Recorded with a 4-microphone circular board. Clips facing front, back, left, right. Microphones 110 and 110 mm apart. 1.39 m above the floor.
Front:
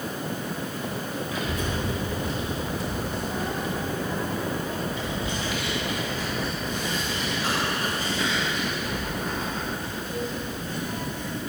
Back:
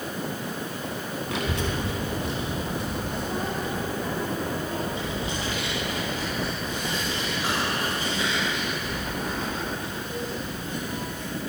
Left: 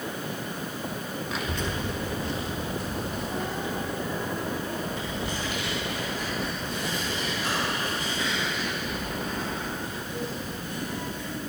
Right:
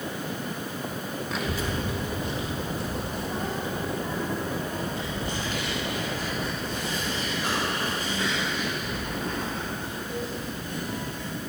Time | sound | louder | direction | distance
1.3 | a child speaking | back 3 dB, right 2 dB | straight behind | 1.3 m